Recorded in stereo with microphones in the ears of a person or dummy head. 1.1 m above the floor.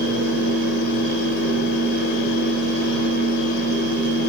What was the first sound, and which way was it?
A fan, 65° left (ahead or behind).